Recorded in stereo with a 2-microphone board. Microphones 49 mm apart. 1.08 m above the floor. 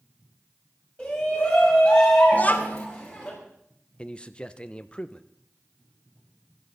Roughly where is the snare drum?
No snare drum in this recording.